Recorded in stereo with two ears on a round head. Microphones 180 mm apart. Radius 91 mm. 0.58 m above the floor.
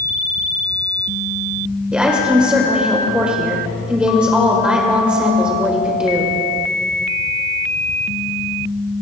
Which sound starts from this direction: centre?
A woman speaking, at 1.9 s.